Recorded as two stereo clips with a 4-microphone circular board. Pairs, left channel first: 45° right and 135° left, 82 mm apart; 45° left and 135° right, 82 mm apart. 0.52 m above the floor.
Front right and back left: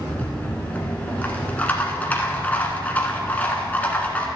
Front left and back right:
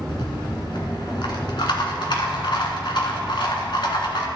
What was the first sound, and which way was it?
A rattle, 25° left.